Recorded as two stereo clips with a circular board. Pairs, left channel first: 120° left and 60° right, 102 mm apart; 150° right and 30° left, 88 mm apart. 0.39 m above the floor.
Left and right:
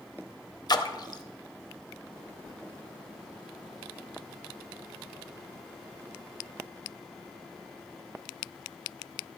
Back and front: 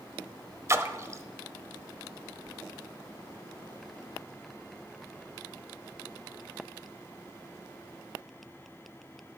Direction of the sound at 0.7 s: 80° left.